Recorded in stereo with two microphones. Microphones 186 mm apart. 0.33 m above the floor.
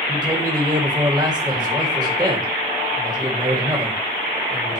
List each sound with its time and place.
0.1 s a man speaking: 20° right (ahead or behind), 1.5 m